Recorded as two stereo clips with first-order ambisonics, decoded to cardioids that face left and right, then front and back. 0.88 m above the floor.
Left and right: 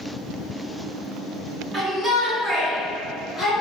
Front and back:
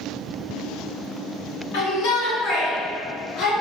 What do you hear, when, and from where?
1.7 s a shout: 10° right, 1.9 m; by 3.5 s 20° left, 2 m